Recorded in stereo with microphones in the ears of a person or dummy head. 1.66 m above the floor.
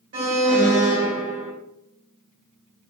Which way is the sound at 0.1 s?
50° right (ahead or behind).